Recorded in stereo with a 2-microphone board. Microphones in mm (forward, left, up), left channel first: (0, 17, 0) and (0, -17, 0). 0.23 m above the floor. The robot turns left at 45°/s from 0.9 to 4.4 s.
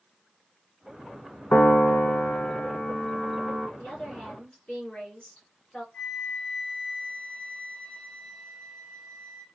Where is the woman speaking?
50° left (ahead or behind), 2.5 m; by 5.8 s 30° left (ahead or behind), 2.5 m.